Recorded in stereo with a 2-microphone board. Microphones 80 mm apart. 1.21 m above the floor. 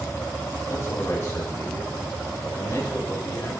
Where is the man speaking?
40° left (ahead or behind), 9 m.